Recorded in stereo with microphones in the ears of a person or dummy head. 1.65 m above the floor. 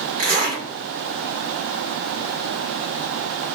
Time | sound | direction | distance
0.2 | a zipper | 35° right (ahead or behind) | 1.6 m